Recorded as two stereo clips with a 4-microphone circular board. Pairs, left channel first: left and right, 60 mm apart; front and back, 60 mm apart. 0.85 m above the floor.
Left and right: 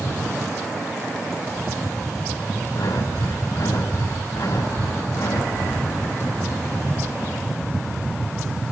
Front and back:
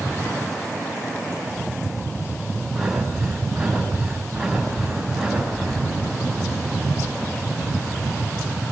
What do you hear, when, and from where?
2.7 s breathing: 90° left, 7 m